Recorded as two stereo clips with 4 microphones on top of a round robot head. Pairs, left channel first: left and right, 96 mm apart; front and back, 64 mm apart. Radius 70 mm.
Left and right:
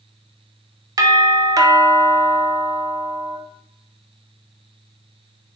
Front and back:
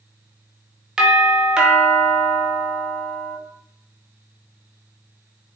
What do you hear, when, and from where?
1.0 s a doorbell: 110° right, 0.7 m